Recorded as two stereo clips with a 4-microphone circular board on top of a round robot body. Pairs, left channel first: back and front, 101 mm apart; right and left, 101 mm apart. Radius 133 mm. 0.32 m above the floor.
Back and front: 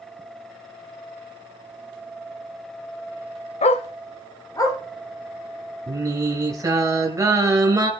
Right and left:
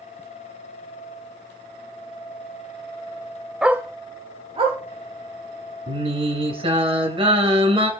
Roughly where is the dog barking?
Behind.